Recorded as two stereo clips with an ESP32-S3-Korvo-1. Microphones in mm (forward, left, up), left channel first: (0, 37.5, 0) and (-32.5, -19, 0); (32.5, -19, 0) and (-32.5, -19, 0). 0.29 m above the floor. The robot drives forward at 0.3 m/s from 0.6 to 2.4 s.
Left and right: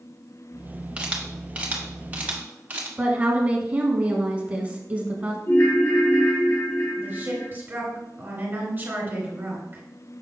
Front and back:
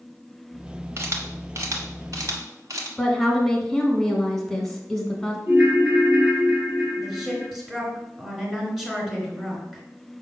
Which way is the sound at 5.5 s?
100° left.